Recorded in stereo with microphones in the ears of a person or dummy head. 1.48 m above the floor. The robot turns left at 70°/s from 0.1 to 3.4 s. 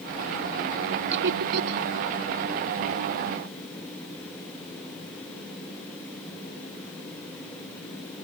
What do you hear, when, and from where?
1.1 s laughter: 60° right (ahead or behind); by 1.9 s 65° right (ahead or behind)